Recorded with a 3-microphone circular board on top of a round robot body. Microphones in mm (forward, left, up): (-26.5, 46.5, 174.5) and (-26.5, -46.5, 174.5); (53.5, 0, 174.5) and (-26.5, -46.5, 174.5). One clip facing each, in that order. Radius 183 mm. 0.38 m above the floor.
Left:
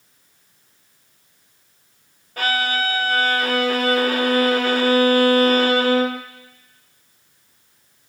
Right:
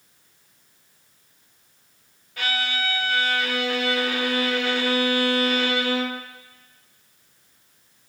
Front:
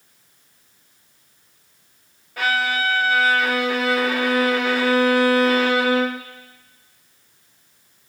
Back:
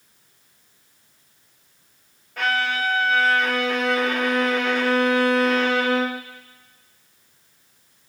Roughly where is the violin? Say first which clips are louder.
Left 6 dB, front 1 dB; behind left.